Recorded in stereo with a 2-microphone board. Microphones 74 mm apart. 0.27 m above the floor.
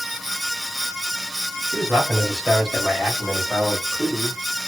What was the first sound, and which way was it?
A man speaking, 20° right (ahead or behind).